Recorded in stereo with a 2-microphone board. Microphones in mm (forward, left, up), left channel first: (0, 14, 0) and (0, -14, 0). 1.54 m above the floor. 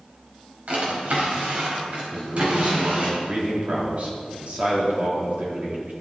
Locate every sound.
0.7 s a drawer: 55° right (ahead or behind), 4 m
2.1 s a man speaking: 50° right (ahead or behind), 3.5 m